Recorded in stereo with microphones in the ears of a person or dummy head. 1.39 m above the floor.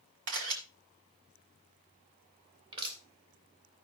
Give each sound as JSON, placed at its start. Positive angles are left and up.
{"t": 0.3, "sound": "a camera shutter", "side_deg": -70, "distance_m": 3.0}
{"t": 2.7, "sound": "crushing", "side_deg": -30, "distance_m": 3.0}